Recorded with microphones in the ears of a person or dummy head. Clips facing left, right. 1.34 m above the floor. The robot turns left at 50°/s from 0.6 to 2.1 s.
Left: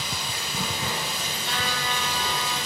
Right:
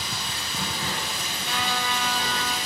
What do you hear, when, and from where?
0.0 s running water: 170° left, 4 m; by 2.7 s 95° left, 4 m
1.4 s a trumpet: 160° left, 5.5 m; by 2.6 s 125° left, 5.5 m